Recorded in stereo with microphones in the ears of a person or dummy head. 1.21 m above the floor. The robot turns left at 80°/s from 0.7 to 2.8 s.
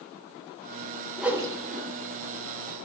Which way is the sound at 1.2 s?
Centre (ahead or behind).